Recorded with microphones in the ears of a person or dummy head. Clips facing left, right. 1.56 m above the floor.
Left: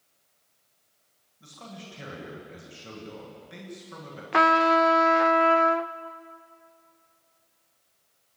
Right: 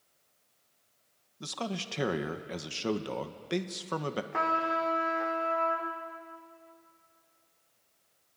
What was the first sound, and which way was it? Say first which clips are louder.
A man speaking: right 8 dB; 80° right.